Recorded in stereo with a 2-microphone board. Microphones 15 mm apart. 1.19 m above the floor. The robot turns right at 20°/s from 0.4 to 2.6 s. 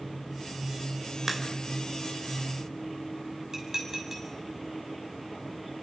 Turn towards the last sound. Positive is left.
turn(degrees=-30)  # may be behind; listen again after turning